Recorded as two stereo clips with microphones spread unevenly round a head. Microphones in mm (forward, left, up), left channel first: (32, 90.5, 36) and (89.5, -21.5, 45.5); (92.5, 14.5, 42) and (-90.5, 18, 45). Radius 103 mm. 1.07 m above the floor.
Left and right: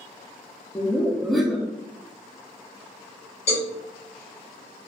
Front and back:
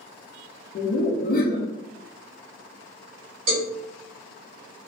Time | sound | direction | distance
0.8 | laughter | 30° left | 0.6 m
3.5 | a cowbell | 170° left | 1.3 m